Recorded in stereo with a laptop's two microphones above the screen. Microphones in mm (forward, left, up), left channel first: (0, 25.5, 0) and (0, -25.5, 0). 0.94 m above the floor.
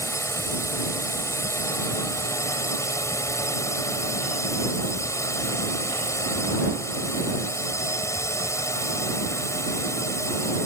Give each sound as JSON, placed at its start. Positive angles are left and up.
{"t": 0.0, "sound": "a drone", "side_deg": 70}